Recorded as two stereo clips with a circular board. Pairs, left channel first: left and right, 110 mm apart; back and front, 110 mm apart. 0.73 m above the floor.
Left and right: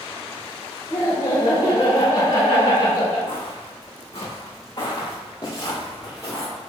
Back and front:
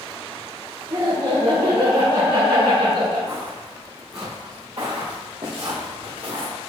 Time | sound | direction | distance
0.9 | laughter | 45° left | 3 m
3.3 | footsteps | 55° left | 2.5 m